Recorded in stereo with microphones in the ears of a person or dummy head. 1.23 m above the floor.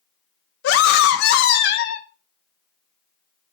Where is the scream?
70° left (ahead or behind), 0.6 m.